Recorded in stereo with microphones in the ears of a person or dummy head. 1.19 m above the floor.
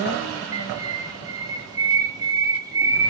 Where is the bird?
15° right (ahead or behind), 0.7 m.